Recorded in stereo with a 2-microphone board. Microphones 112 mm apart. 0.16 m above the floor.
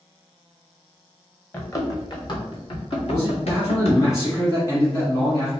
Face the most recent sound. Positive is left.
turn(degrees=30)  # may be behind; listen again after turning